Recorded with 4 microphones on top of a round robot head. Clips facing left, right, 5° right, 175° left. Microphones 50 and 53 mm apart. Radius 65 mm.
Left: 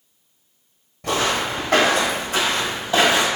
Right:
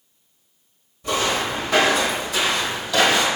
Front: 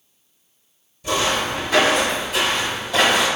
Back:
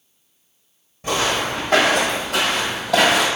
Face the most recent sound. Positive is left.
turn(degrees=160)